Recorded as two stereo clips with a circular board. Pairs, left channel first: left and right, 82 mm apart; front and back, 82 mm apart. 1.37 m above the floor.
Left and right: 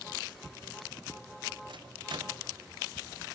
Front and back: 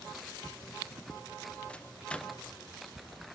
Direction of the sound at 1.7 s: 75° right.